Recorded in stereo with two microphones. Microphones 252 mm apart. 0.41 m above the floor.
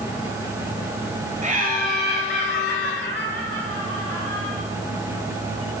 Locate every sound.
1.4 s laughter: 30° right (ahead or behind), 2 m; by 4.5 s 50° right (ahead or behind), 2.5 m